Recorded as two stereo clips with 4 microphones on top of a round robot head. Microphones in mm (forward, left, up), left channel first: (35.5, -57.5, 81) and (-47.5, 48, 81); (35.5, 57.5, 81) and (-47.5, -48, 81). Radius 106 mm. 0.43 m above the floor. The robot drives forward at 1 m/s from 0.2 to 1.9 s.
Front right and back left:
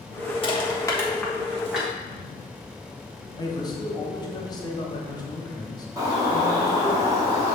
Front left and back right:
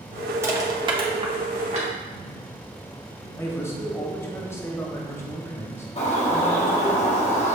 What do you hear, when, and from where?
0.4 s crushing: 70° right, 1.1 m; by 1.9 s 150° right, 1.6 m
3.4 s a man speaking: 10° right, 0.9 m
6.0 s a bird: 70° left, 1.4 m